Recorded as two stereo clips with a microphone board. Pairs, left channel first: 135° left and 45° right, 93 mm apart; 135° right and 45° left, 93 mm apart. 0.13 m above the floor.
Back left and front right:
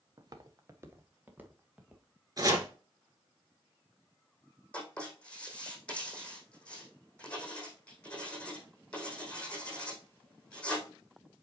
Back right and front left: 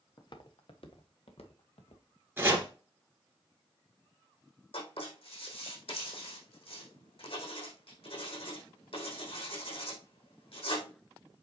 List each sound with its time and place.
0.2 s footsteps: 90° right, 1.5 m; by 2.0 s 130° right, 2.5 m
2.4 s chopping: 15° right, 2.5 m
4.7 s writing: 150° right, 4 m